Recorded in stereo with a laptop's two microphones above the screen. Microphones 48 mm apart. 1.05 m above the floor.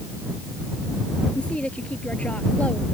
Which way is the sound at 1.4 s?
25° left (ahead or behind).